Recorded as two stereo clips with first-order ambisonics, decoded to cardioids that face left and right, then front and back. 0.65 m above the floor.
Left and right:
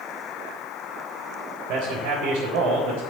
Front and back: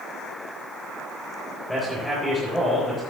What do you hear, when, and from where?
1.7 s a man speaking: 85° right, 3.5 m